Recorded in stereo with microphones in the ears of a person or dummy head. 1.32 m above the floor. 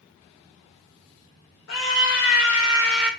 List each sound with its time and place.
1.7 s a scream: 70° left (ahead or behind), 1.1 m; by 3.1 s 15° right (ahead or behind), 0.5 m